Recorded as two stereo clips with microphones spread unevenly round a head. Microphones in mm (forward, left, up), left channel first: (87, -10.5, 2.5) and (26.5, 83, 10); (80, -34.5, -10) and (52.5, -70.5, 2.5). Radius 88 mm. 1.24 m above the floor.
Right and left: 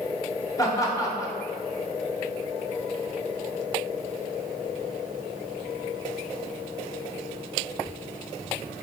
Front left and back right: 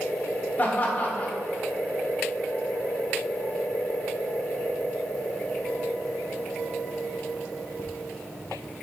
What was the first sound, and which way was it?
Laughter, 5° left.